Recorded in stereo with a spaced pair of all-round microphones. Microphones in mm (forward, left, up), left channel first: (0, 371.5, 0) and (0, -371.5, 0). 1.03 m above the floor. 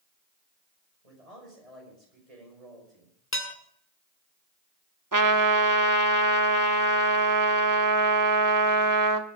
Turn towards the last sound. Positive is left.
turn(degrees=-25)  # may be behind; listen again after turning